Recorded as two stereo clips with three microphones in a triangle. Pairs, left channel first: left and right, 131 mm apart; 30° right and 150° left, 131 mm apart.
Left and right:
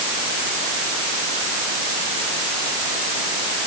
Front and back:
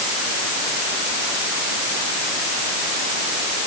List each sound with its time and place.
Only background noise.